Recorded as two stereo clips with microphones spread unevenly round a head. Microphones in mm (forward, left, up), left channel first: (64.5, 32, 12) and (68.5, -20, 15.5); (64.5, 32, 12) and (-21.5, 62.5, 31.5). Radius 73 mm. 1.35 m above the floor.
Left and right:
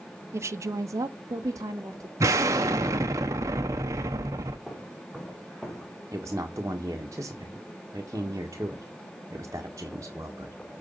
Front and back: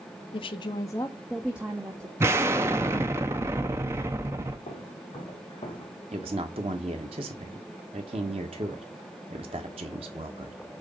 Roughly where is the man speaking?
Behind right.